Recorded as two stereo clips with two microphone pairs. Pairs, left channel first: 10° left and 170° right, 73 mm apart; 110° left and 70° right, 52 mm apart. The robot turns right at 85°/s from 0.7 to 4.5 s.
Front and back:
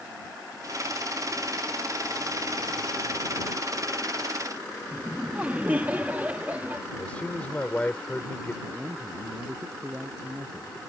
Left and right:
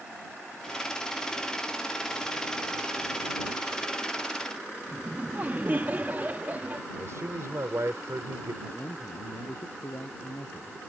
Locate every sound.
4.9 s laughter: 110° right
7.0 s a man speaking: 60° right
8.6 s a man speaking: 130° left